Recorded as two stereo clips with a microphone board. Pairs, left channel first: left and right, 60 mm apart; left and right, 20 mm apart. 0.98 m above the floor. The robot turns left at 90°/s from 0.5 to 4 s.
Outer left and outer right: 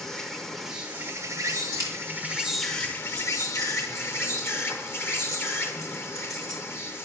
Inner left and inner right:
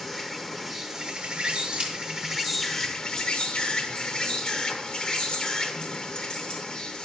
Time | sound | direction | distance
0.0 | an insect | 10° left | 1.0 m
1.7 | keys jangling | 70° right (ahead or behind) | 1.6 m